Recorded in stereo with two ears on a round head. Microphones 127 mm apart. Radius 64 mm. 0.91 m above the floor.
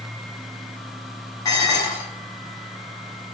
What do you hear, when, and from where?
1.4 s dishes clattering: 25° left (ahead or behind), 1.4 m